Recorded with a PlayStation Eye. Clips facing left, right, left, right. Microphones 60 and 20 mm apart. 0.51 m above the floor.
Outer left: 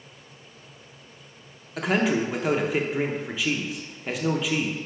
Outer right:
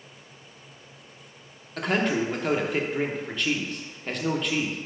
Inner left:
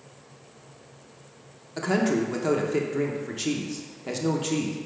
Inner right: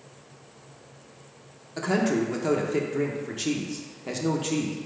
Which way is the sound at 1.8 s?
5° left (ahead or behind).